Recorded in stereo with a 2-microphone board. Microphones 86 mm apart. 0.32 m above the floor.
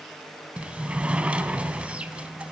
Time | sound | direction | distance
0.6 | a sliding door | 15° right (ahead or behind) | 0.9 m